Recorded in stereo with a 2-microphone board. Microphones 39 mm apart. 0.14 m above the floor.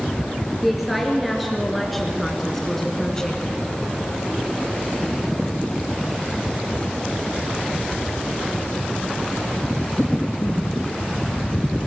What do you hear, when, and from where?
0.6 s a woman speaking: centre (ahead or behind), 2 m; by 3.4 s 15° left (ahead or behind), 1.2 m